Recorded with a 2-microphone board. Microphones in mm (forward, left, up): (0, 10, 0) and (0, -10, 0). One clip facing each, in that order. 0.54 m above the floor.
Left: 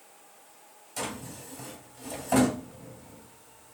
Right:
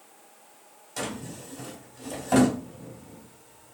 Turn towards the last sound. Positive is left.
turn(degrees=-20)  # may be behind; listen again after turning